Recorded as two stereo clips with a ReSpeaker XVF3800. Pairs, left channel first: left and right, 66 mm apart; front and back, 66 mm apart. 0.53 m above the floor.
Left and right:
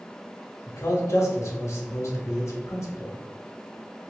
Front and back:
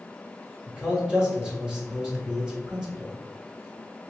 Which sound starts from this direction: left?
A man speaking, at 0.7 s.